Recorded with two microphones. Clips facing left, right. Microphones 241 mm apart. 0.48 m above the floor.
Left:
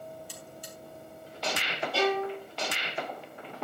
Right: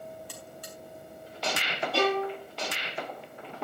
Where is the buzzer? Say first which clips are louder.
Right 1 dB; 75° right (ahead or behind), 4.5 m.